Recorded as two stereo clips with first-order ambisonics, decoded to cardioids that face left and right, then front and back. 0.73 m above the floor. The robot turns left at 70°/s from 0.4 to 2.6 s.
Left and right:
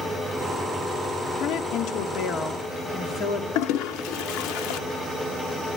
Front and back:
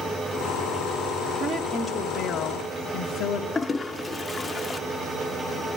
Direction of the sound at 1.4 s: 120° left.